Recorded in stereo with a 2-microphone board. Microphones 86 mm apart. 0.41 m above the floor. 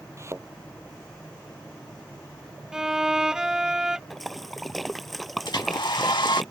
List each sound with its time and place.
0.2 s a thud: 35° right (ahead or behind)
2.7 s a violin: 5° right (ahead or behind)
4.1 s a splash: centre (ahead or behind)
5.5 s a hair dryer: 65° left (ahead or behind)